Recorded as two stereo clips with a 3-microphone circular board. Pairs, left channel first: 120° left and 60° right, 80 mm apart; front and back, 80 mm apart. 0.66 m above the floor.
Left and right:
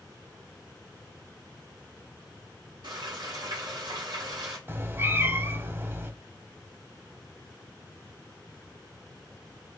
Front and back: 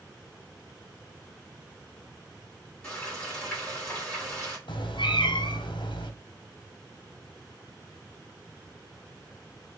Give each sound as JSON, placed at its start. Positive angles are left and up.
{"t": 2.8, "sound": "frying", "azimuth_deg": -75, "distance_m": 2.5}
{"t": 4.7, "sound": "a cat meowing", "azimuth_deg": 0, "distance_m": 0.6}